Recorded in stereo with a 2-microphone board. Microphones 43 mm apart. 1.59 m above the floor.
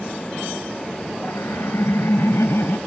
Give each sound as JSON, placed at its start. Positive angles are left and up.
{"t": 1.2, "sound": "laughter", "side_deg": 85}